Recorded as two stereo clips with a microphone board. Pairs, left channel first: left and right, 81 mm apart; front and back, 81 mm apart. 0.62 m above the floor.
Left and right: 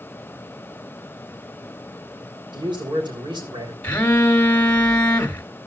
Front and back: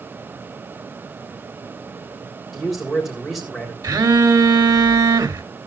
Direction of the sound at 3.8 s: 160° left.